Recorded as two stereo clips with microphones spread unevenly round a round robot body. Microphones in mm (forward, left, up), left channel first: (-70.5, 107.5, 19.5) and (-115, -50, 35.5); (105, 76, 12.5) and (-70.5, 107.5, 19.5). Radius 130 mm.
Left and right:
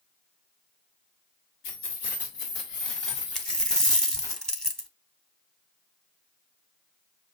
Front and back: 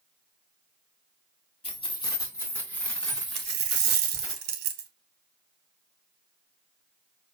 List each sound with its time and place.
1.6 s keys jangling: 50° left, 1.5 m; by 4.3 s 85° left, 3.5 m
3.4 s a dropped coin: 165° left, 0.9 m